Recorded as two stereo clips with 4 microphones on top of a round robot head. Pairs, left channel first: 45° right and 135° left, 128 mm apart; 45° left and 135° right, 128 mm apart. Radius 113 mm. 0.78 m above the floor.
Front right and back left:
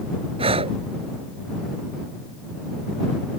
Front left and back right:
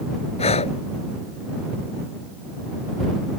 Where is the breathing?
90° left.